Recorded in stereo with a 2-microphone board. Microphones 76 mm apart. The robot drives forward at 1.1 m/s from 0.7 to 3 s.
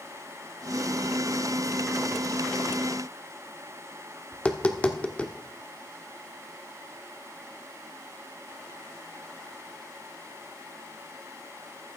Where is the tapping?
20° left (ahead or behind), 1.1 m.